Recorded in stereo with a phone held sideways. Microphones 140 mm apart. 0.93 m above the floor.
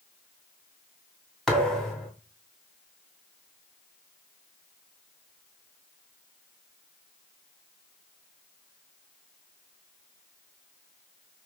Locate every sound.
1.5 s a thud: 5° left (ahead or behind), 2.5 m